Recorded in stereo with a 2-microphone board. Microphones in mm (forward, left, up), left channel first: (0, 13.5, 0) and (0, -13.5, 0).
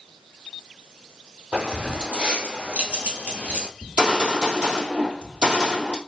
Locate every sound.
1.5 s keys jangling: 65° right (ahead or behind), 2.5 m; by 3.7 s 55° right (ahead or behind), 1.3 m
3.8 s a gunshot: 60° right (ahead or behind), 2 m